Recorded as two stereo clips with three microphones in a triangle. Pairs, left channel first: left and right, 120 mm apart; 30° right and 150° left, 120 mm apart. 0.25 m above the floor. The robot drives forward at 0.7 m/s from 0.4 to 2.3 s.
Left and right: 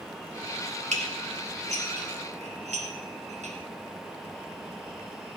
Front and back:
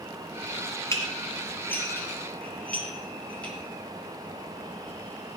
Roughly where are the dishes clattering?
Right.